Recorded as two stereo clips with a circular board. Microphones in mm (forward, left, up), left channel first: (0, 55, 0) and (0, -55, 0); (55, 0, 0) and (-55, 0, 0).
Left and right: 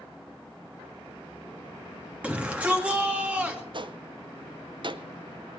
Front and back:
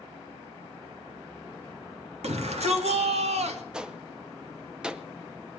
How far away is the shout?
About 2 m.